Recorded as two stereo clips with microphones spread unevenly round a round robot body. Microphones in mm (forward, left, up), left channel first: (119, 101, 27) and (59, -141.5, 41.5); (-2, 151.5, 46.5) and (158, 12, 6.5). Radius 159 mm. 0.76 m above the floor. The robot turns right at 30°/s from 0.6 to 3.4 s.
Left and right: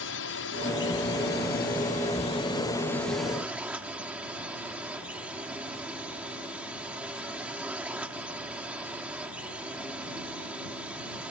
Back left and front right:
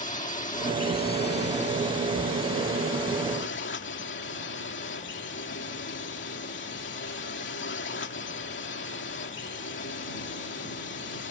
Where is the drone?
85° left; by 11.3 s 170° left.